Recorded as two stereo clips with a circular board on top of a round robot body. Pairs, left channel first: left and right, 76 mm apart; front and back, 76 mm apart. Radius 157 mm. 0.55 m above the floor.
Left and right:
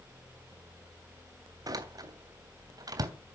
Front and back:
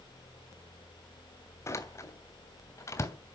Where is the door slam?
50° right, 3 m.